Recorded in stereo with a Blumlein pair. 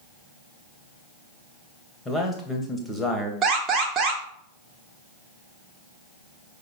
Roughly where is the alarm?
Ahead right.